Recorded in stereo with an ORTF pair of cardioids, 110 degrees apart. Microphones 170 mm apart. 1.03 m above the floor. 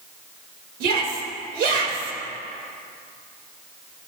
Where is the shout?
70° right, 4.5 m.